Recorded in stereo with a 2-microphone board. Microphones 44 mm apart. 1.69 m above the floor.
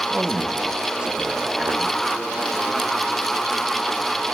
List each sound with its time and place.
0.1 s a man speaking: 20° right (ahead or behind), 2.5 m